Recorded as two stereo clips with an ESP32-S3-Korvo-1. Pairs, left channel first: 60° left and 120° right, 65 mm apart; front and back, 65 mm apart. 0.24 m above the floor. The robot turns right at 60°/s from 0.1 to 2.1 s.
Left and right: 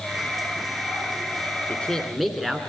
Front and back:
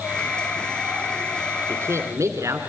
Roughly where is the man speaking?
Behind left.